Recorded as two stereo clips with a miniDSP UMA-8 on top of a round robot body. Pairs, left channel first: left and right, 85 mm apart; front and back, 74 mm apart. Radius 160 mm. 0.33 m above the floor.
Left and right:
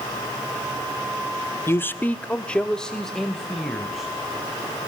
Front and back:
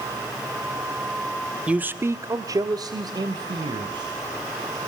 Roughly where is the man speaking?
Behind left.